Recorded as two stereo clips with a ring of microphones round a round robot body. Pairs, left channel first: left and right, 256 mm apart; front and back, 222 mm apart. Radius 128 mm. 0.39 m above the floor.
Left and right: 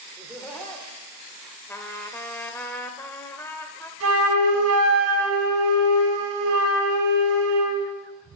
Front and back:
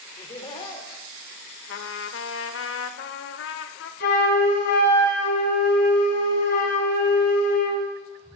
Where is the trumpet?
10° left, 0.6 m.